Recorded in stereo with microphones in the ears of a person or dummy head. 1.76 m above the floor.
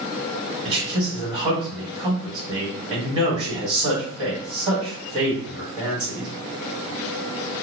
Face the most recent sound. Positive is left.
turn(degrees=-30)  # may be behind; listen again after turning